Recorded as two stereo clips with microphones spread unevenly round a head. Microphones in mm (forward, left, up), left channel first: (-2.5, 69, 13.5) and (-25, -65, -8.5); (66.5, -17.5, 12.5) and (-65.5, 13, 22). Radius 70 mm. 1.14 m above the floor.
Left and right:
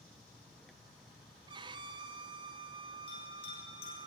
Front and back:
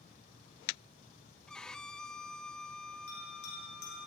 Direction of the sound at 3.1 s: 30° left.